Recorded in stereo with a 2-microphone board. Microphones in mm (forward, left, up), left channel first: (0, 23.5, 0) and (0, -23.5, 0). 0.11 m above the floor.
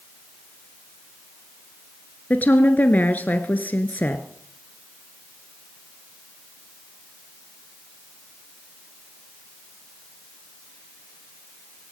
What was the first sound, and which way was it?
A woman speaking, 35° left (ahead or behind).